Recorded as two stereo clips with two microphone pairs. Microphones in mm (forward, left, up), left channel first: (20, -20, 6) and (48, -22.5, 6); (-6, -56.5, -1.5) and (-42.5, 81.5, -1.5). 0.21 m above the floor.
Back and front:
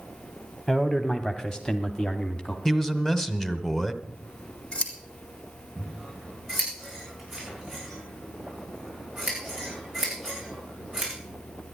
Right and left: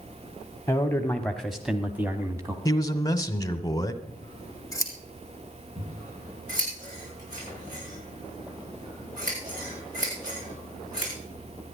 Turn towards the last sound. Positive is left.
turn(degrees=85)